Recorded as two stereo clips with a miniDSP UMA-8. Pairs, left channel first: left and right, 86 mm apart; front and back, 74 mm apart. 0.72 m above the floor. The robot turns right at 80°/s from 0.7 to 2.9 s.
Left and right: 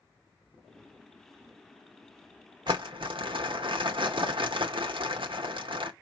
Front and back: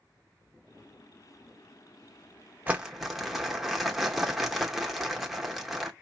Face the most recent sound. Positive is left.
turn(degrees=-90)